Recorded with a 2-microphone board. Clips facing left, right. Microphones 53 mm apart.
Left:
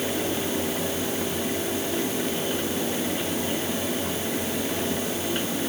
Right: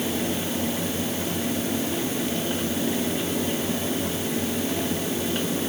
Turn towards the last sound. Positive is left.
No sound to turn to.